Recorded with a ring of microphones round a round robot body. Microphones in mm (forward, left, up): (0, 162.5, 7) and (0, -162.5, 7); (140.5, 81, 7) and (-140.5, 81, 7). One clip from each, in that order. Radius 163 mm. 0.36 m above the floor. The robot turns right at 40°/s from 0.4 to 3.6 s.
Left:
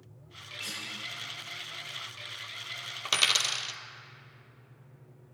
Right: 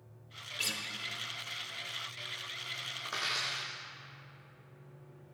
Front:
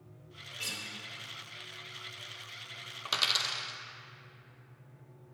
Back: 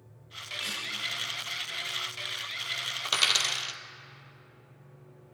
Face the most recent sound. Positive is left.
turn(degrees=120)